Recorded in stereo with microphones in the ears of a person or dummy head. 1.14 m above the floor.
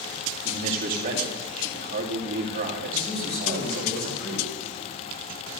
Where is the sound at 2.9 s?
55° left (ahead or behind), 5.5 m.